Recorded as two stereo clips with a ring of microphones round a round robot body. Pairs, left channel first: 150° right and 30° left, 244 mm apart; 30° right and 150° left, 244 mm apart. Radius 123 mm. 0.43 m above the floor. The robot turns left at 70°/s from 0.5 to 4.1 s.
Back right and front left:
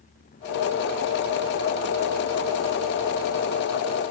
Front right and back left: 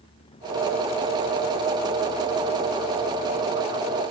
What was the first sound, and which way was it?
Only background noise.